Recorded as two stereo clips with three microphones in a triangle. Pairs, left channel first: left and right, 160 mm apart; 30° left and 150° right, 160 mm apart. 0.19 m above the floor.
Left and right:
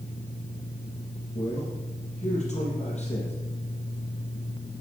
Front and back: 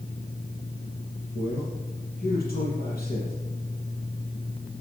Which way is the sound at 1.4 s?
45° left.